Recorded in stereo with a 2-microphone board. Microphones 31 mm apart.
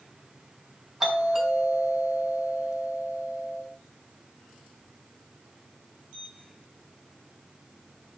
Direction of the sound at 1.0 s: 15° right (ahead or behind).